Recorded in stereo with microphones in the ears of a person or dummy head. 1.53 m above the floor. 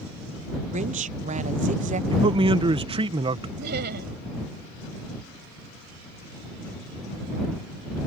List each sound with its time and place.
0.7 s a woman speaking: 35° right (ahead or behind)
2.1 s a man speaking: 25° right (ahead or behind)
3.6 s laughter: 60° right (ahead or behind)